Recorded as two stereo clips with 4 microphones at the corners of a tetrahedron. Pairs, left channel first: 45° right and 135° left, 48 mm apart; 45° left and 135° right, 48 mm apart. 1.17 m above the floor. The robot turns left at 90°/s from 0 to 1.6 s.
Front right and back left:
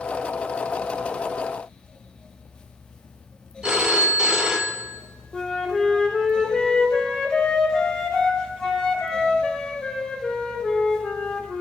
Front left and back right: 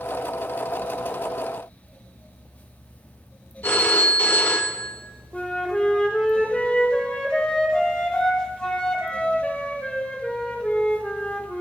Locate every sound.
3.6 s a phone ringing: 65° left, 0.6 m
5.3 s a flute: 5° left, 0.8 m